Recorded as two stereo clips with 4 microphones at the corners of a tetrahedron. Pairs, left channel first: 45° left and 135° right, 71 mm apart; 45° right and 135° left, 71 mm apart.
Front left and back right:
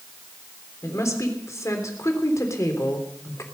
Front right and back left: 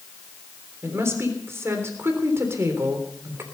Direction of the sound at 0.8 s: 85° left.